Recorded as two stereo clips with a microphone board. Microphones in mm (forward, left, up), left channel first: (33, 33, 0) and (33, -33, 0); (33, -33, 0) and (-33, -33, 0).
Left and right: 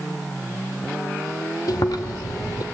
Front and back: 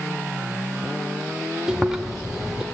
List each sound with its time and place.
1.7 s chewing: 100° left, 2 m